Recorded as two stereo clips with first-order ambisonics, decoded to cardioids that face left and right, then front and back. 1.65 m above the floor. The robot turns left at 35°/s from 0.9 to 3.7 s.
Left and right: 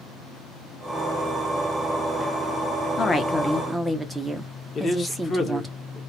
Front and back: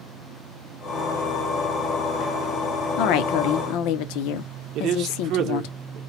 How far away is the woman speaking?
About 0.6 m.